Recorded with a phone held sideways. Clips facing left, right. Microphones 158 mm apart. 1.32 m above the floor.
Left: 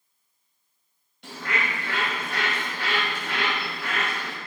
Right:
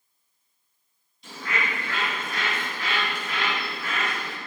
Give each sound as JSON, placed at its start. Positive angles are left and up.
{"t": 1.2, "sound": "a bird", "side_deg": 75, "distance_m": 3.0}